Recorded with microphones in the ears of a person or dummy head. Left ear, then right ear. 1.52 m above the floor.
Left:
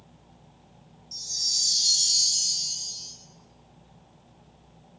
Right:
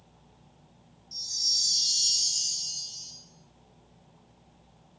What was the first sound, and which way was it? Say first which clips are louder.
A chime: even; centre (ahead or behind).